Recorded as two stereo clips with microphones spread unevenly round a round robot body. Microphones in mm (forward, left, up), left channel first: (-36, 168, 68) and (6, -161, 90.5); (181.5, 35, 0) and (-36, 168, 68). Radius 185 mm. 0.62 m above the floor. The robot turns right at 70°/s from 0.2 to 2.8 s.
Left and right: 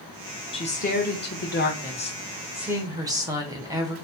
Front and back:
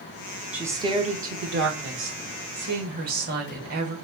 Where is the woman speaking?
40° left, 1.2 m; by 4.0 s 160° right, 1.2 m.